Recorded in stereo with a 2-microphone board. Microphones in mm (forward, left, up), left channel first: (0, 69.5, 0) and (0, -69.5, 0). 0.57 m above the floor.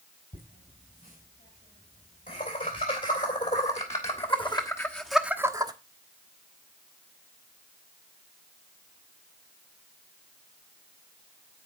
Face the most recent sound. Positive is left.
turn(degrees=-30)  # may be behind; listen again after turning